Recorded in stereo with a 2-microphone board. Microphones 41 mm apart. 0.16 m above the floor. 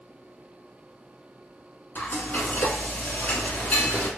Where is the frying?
45° left (ahead or behind), 1.0 m.